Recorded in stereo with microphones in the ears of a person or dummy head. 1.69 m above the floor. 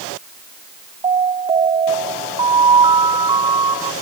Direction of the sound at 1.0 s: 25° right (ahead or behind).